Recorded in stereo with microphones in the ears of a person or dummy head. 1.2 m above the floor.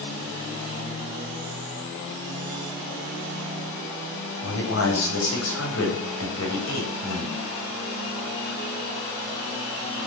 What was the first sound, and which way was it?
A man speaking, 80° left.